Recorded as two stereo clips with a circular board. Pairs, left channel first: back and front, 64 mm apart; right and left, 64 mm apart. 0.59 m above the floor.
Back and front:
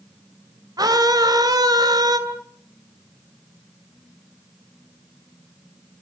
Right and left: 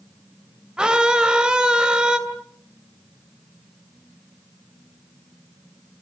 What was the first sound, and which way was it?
A scream, 10° left.